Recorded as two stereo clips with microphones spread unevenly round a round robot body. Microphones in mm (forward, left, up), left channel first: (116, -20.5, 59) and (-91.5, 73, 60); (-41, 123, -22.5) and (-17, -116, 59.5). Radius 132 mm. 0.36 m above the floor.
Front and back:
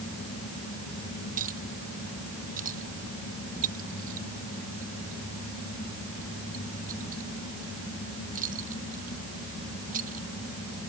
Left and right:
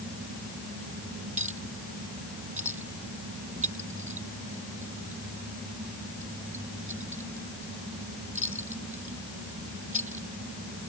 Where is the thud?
No thud in this recording.